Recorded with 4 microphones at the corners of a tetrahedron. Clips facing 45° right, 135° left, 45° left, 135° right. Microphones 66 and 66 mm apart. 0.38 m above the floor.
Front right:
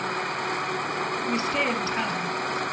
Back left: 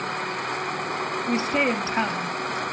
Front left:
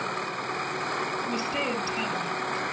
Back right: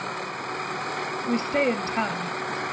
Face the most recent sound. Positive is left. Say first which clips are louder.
# back left 4 dB, back right 5 dB
turn(degrees=-165)